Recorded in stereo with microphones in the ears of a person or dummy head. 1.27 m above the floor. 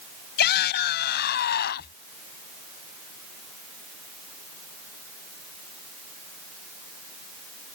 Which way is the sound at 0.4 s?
60° left (ahead or behind).